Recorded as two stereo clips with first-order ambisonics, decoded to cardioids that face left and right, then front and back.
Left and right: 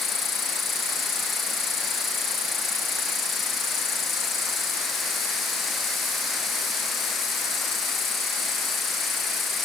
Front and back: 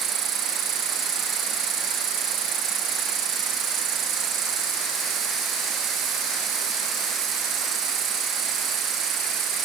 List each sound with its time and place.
0.0 s an insect: 150° left